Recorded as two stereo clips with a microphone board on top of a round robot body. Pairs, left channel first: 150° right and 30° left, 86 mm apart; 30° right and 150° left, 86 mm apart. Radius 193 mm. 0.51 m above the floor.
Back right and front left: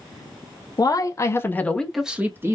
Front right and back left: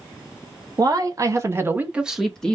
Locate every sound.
0.8 s a man speaking: straight behind, 1.5 m; by 2.5 s 40° left, 1.1 m